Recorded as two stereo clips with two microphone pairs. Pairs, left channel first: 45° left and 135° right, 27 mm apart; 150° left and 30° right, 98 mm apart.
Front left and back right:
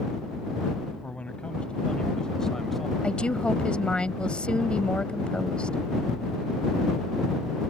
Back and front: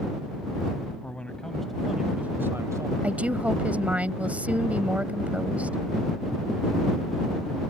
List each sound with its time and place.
1.0 s a man speaking: 75° left; by 2.9 s 40° right
3.0 s a woman speaking: 35° left